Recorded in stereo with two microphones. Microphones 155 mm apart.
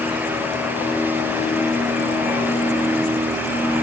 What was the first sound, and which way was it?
Only background noise.